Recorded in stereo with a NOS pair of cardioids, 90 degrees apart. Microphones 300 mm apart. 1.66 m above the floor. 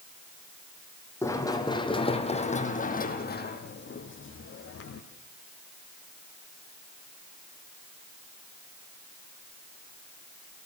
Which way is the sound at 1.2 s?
10° left.